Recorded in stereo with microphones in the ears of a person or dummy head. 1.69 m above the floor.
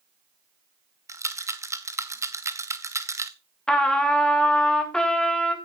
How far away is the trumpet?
About 1.7 m.